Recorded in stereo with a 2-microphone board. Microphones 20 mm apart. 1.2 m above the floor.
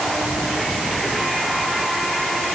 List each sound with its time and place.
Only background noise.